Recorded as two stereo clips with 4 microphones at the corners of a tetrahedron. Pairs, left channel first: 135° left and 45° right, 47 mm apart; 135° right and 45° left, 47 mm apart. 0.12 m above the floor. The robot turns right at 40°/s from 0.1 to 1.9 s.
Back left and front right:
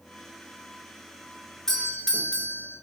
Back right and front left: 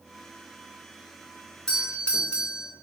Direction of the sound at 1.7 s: 165° right.